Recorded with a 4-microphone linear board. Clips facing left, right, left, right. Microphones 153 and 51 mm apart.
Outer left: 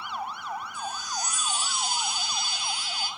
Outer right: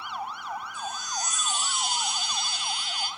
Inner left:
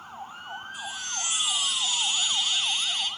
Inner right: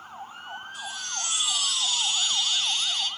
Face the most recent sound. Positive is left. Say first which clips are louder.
# even, even
turn(degrees=10)  # may be behind; listen again after turning